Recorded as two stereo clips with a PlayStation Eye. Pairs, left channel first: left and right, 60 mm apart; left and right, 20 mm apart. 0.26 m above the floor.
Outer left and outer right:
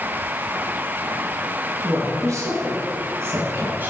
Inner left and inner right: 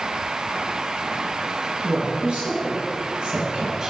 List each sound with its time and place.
1.8 s a woman speaking: 65° right (ahead or behind), 3 m; by 3.9 s 30° right (ahead or behind), 1.6 m